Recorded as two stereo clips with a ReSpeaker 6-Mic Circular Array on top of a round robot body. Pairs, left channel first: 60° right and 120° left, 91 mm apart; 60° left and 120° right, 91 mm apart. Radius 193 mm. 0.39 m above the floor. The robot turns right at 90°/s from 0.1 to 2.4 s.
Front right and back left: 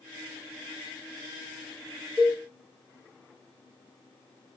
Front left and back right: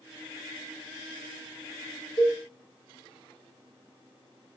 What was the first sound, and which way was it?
A cowbell, 25° left.